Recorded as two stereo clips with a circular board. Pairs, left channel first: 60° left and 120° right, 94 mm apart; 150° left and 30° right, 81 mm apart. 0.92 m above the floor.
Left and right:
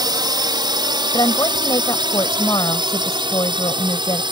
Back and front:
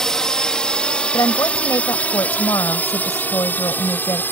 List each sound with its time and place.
0.0 s a drone: 130° right; by 4.3 s 150° right
1.1 s a woman speaking: 105° left